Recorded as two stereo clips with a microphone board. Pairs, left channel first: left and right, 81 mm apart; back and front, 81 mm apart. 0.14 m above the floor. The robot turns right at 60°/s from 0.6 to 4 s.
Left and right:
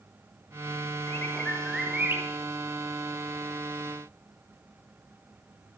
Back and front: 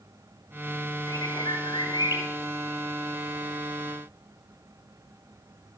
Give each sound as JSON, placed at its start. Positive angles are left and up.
{"t": 1.1, "sound": "a bird", "azimuth_deg": 145, "distance_m": 2.5}